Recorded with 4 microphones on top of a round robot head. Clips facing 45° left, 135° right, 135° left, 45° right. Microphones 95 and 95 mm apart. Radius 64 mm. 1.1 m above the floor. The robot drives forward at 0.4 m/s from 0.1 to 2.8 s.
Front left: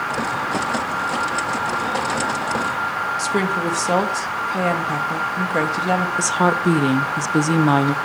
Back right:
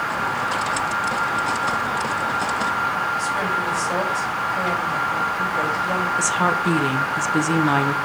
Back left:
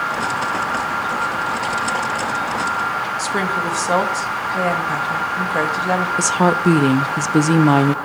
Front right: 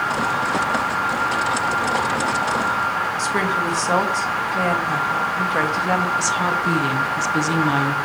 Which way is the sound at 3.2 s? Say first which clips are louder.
Front left 2 dB, back left 1 dB; 50° left.